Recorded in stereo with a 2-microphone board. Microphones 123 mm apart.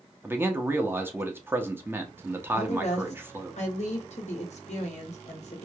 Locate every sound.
0.2 s a man speaking: 15° right (ahead or behind), 0.7 m
2.5 s a woman speaking: 70° left (ahead or behind), 1.5 m